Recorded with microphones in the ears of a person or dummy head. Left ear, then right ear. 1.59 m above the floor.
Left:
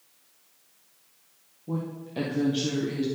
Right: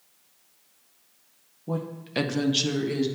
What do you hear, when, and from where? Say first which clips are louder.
1.7 s a woman speaking: right 3 dB; 55° right (ahead or behind), 0.7 m; by 3.1 s 25° right (ahead or behind), 1.3 m